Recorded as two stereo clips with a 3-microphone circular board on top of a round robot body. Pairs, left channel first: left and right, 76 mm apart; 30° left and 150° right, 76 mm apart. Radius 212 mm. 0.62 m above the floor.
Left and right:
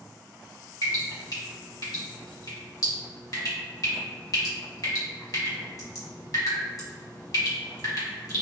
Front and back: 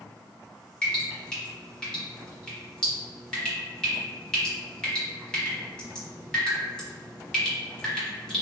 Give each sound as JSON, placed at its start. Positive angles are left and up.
{"t": 0.8, "sound": "dripping", "azimuth_deg": 105, "distance_m": 1.6}